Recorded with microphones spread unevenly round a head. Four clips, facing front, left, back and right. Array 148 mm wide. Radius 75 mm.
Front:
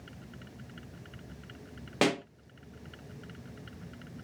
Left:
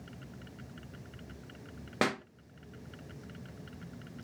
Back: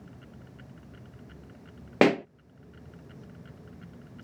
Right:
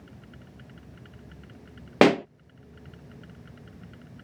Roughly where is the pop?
Right.